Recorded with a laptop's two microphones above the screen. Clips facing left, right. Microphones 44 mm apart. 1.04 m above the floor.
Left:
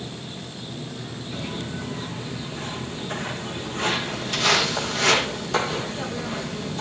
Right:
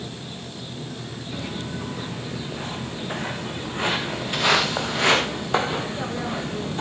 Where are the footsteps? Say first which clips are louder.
Even; 15° right (ahead or behind), 5.5 m; by 6.8 s 25° right (ahead or behind), 3 m.